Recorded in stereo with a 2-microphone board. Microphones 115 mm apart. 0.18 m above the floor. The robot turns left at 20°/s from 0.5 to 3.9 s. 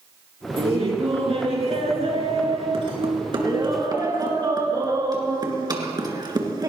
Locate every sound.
0.6 s laughter: 70° right, 2.5 m; by 6.7 s 135° right, 2.5 m